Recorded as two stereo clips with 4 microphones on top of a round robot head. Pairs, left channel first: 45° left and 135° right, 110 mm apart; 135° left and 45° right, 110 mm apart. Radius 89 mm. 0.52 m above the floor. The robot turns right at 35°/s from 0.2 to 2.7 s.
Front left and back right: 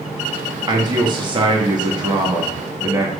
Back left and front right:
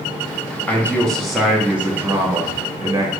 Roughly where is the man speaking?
Behind.